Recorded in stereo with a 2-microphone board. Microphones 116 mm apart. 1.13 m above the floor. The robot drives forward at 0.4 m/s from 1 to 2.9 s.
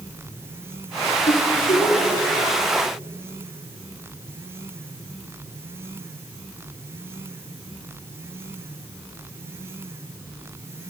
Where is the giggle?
75° left (ahead or behind), 4 m; by 2.1 s 70° left (ahead or behind), 4 m.